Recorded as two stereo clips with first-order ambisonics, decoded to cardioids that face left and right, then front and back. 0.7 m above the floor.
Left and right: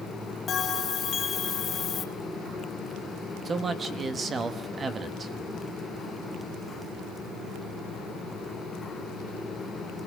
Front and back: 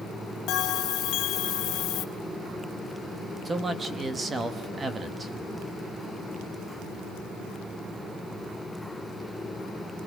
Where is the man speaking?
130° right, 1.0 m.